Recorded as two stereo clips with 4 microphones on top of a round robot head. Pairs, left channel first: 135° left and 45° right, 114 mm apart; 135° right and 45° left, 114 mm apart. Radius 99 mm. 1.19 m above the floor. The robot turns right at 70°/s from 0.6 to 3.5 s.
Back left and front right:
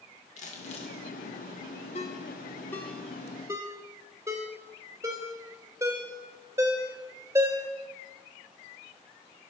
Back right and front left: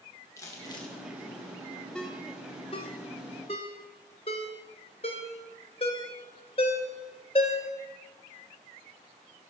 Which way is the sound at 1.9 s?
145° left.